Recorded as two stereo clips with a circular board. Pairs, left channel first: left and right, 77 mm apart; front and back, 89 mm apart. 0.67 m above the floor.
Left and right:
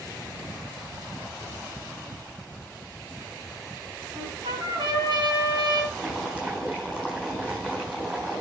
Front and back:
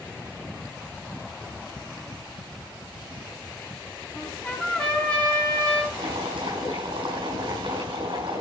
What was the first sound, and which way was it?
A trumpet, 75° right.